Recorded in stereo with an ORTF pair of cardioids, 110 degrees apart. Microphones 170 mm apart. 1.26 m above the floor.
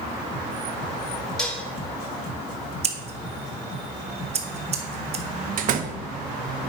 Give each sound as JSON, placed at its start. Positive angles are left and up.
{"t": 1.4, "sound": "dishes clattering", "azimuth_deg": 5, "distance_m": 1.5}
{"t": 2.8, "sound": "scissors", "azimuth_deg": -40, "distance_m": 1.1}
{"t": 5.6, "sound": "a door slam", "azimuth_deg": -55, "distance_m": 0.8}